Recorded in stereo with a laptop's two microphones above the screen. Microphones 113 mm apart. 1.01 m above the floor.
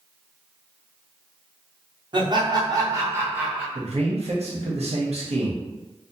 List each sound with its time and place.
2.1 s laughter: 40° right (ahead or behind), 0.9 m; by 3.6 s 10° right (ahead or behind), 0.9 m
3.8 s a man speaking: 65° right (ahead or behind), 0.8 m